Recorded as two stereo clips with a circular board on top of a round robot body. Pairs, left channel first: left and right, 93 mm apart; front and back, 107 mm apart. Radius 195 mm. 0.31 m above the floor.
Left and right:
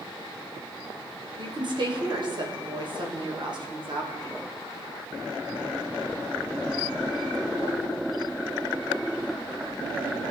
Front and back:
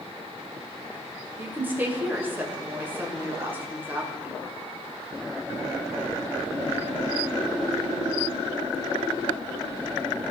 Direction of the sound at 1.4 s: 110° right.